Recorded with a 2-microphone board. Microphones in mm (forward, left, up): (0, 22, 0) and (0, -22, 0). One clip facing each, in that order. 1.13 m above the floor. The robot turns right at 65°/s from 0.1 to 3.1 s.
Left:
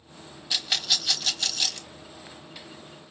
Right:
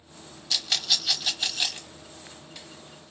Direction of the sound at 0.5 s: 15° left (ahead or behind).